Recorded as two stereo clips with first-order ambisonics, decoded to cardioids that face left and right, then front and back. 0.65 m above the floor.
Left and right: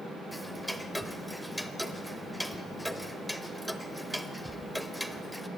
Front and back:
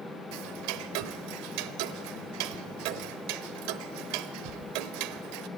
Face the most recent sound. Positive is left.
turn(degrees=180)